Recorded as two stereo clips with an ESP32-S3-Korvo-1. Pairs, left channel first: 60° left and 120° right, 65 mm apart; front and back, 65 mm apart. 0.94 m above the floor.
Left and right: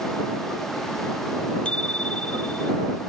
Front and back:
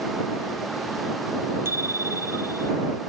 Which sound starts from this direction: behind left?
A bicycle bell, at 1.6 s.